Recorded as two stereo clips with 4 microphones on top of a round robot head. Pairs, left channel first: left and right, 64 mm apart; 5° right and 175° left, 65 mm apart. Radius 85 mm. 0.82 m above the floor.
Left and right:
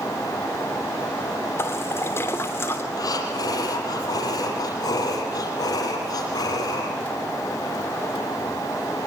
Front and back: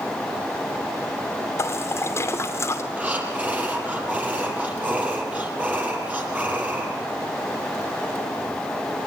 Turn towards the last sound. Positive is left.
turn(degrees=105)